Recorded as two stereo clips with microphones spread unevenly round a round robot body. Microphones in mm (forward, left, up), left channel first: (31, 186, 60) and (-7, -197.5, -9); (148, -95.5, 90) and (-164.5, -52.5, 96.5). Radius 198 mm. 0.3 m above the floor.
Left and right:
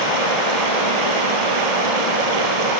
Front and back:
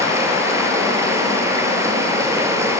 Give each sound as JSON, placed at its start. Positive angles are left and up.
{"t": 0.0, "sound": "running water", "azimuth_deg": -105, "distance_m": 3.0}